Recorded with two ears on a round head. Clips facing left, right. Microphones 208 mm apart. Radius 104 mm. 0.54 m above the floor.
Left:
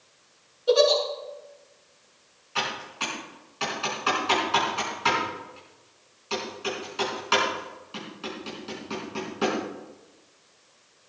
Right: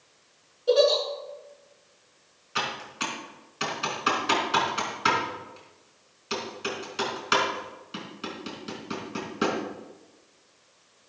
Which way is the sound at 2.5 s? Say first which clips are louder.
Even; 20° right (ahead or behind).